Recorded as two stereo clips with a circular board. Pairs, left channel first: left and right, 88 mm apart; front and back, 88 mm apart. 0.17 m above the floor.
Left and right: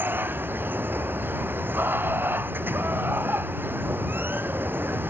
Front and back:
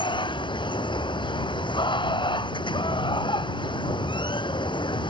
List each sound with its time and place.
0.0 s running water: 25° right